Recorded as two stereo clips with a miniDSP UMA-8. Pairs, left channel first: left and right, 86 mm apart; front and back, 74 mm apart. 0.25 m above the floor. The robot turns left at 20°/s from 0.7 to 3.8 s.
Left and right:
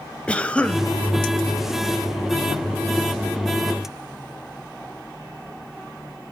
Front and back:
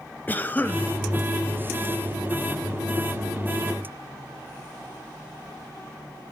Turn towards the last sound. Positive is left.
turn(degrees=-30)